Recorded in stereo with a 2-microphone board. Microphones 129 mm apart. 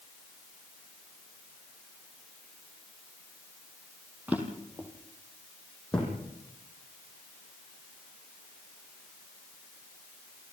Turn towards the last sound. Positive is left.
turn(degrees=10)  # may be behind; listen again after turning